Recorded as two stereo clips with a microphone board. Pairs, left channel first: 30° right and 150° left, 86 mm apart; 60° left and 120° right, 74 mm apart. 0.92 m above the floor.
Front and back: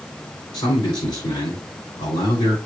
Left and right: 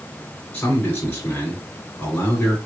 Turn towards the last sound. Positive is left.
turn(degrees=-5)